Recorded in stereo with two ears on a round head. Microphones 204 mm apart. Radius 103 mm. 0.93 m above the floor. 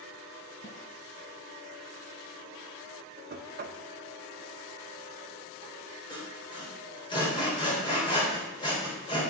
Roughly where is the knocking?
Right.